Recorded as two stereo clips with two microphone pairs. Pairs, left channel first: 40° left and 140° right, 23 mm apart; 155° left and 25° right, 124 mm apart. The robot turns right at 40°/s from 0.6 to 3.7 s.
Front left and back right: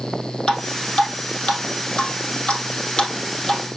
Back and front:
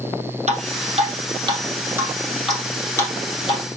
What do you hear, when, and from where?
0.5 s dripping: 10° right, 3 m; by 3.6 s 110° left, 3 m